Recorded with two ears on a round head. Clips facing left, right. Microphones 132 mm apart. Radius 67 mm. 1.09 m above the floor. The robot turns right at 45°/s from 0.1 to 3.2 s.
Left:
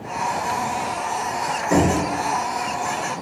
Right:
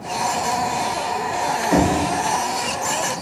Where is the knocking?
55° left (ahead or behind), 1.8 m; by 1.9 s 40° left (ahead or behind), 1.8 m.